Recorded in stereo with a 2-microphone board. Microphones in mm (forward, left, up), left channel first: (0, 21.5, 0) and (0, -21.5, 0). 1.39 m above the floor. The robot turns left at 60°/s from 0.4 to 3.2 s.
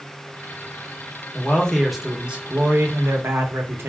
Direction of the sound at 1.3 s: 35° left.